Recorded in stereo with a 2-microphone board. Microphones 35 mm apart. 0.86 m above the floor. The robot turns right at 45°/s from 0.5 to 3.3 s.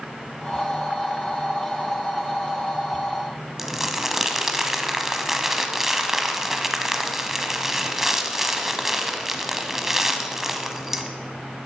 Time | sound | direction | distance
3.6 | crumpling | 10° right (ahead or behind) | 0.8 m